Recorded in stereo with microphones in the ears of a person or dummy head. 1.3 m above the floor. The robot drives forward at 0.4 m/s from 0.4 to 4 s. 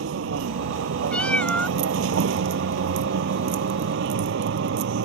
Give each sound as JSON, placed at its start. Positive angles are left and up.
{"t": 0.0, "sound": "a vehicle", "side_deg": -80}
{"t": 1.1, "sound": "a cat meowing", "side_deg": 5}